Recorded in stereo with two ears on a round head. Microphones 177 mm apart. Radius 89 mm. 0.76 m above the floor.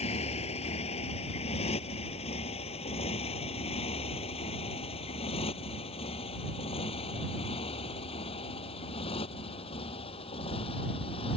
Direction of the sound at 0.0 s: 35° left (ahead or behind).